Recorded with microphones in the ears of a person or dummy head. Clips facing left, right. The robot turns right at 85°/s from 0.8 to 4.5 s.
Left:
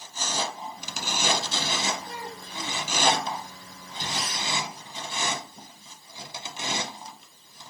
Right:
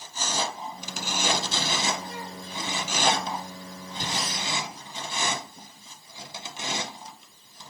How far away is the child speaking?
About 2 m.